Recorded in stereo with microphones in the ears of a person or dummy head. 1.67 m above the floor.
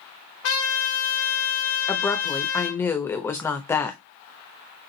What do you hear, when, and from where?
0.4 s a trumpet: 70° left (ahead or behind), 1.4 m
1.9 s a woman speaking: 10° left (ahead or behind), 0.8 m